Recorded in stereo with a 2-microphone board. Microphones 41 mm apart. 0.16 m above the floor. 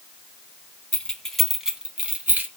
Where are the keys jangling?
30° left (ahead or behind), 1.0 m; by 2.5 s 45° right (ahead or behind), 1.1 m.